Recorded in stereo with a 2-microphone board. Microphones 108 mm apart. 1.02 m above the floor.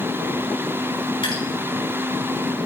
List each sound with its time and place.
1.2 s dripping: 50° left (ahead or behind), 3.5 m